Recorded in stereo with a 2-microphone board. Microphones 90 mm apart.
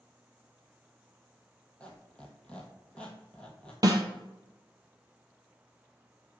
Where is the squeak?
15° left (ahead or behind), 0.9 m.